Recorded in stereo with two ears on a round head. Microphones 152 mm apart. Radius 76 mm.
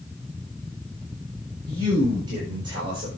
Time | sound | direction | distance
1.7 | a man speaking | 25° right (ahead or behind) | 6 m